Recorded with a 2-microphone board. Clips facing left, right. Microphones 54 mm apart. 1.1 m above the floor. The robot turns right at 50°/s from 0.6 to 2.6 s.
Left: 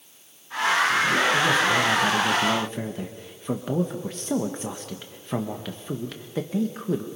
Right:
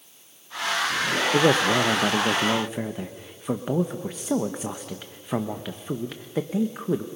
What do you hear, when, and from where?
1.3 s a man speaking: 70° right, 0.9 m; by 7.1 s 10° right, 0.9 m